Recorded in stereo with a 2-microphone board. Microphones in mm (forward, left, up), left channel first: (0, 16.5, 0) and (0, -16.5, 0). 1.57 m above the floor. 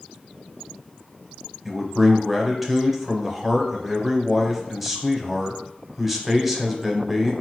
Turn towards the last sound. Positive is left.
turn(degrees=0)  # may be behind; listen again after turning